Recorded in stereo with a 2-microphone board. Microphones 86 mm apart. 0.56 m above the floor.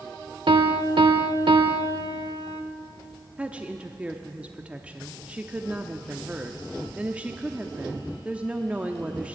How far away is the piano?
About 0.8 m.